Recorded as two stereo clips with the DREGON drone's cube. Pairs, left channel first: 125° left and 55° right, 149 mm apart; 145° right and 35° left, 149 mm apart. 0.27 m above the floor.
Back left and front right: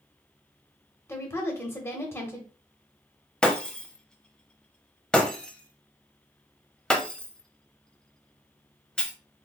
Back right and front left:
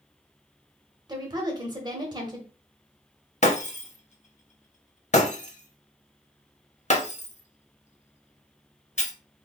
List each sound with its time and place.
1.1 s a woman speaking: 65° left, 1.1 m
3.4 s breaking glass: 155° right, 0.7 m